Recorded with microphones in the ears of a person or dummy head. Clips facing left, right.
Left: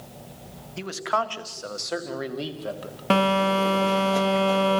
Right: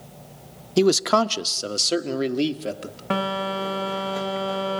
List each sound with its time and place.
0.8 s a man speaking: 65° right (ahead or behind), 0.8 m; by 3.0 s 30° right (ahead or behind), 2.5 m
3.1 s a phone buzzing: 35° left (ahead or behind), 1.5 m